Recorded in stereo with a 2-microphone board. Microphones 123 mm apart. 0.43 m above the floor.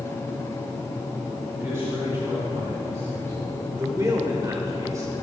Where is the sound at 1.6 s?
25° right (ahead or behind), 4 m.